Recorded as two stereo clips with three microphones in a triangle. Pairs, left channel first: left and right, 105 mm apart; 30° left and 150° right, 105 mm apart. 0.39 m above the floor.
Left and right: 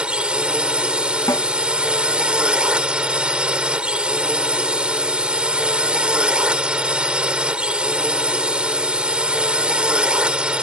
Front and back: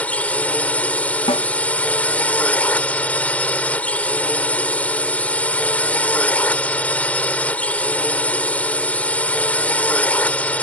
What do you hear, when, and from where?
0.0 s a drone: 25° right
1.3 s a snare drum: 45° left